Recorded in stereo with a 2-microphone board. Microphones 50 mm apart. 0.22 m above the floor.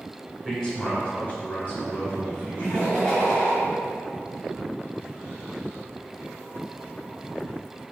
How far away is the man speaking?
About 1.0 m.